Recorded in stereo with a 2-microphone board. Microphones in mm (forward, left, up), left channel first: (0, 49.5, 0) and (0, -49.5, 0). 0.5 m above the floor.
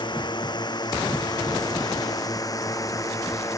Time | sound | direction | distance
0.0 | a drone | 50° left (ahead or behind) | ?